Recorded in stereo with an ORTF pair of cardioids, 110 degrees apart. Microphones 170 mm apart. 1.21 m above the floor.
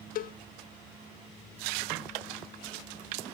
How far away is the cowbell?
About 0.6 m.